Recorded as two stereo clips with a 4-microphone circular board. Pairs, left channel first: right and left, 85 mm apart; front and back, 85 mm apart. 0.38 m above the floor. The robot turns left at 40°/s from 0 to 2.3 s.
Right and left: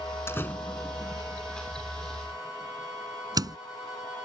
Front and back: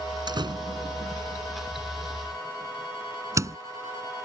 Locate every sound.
0.3 s a door slam: 150° right; by 3.6 s 130° left